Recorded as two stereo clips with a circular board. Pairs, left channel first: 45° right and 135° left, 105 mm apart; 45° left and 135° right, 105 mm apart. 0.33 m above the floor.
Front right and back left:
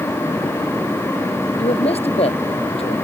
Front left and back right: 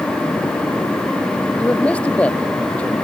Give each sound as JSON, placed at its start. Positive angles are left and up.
{"t": 1.6, "sound": "a man speaking", "azimuth_deg": -35}